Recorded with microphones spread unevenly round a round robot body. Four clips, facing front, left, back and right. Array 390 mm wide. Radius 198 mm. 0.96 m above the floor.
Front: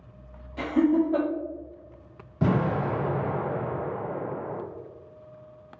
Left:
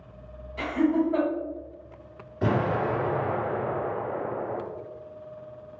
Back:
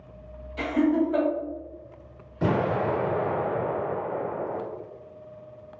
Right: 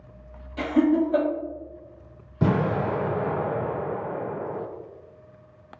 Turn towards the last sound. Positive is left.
turn(degrees=-75)